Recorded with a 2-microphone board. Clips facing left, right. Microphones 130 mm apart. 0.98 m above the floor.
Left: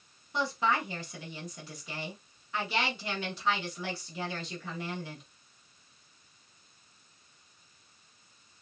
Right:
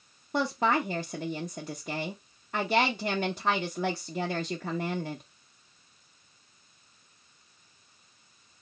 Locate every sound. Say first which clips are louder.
0.3 s a woman speaking: right 4 dB; 50° right (ahead or behind), 0.7 m